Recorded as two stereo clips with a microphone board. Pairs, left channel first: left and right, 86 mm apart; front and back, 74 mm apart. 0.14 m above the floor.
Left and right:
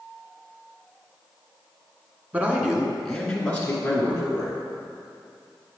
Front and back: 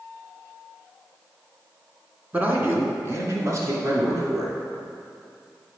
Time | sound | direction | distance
2.3 | a man speaking | 140° right | 1.4 m